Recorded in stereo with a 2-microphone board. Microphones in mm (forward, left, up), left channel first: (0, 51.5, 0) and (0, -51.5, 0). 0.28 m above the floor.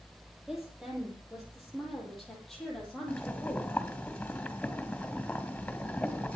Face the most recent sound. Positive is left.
turn(degrees=15)  # may be behind; listen again after turning